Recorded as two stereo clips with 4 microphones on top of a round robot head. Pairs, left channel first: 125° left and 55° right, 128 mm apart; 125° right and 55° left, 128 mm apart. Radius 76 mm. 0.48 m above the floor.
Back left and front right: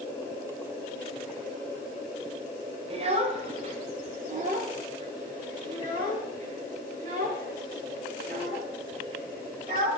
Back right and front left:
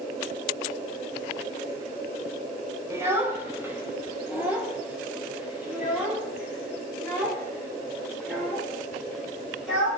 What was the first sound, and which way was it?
A child speaking, 15° right.